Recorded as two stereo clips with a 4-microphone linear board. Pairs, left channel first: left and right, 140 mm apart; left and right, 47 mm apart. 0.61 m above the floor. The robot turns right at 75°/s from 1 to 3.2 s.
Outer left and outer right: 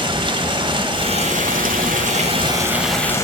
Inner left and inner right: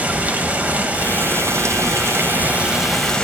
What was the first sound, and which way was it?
Running water, 145° right.